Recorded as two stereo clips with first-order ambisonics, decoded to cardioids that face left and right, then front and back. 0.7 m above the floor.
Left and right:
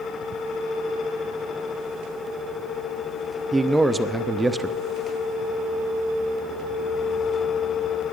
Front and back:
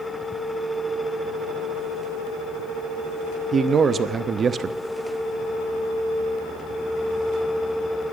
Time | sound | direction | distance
3.5 | a man speaking | 155° right | 0.7 m